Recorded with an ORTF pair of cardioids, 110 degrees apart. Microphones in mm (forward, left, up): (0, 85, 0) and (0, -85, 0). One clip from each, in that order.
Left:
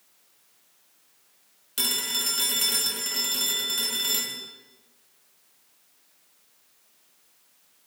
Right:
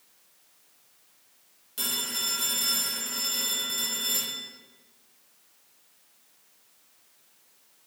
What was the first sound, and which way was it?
A phone ringing, 40° left.